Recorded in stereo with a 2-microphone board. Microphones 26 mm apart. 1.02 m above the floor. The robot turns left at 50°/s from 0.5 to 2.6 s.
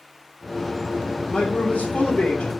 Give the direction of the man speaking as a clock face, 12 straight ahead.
8 o'clock.